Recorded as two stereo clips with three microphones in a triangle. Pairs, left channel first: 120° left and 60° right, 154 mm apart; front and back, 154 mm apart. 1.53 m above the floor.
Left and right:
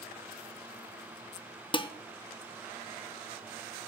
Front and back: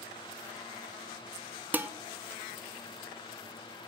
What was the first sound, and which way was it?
Dishes clattering, 110° left.